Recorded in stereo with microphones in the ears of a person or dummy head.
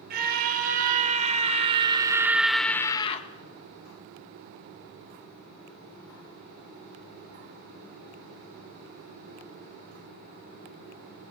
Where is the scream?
50° right (ahead or behind), 3.5 m; by 3.3 s 40° left (ahead or behind), 1.3 m.